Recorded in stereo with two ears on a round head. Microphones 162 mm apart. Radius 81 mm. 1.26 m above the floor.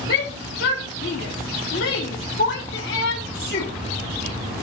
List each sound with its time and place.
0.1 s a shout: 65° left (ahead or behind), 1.3 m